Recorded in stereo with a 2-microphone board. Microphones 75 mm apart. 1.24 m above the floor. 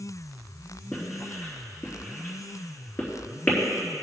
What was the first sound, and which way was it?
Writing, 30° left (ahead or behind).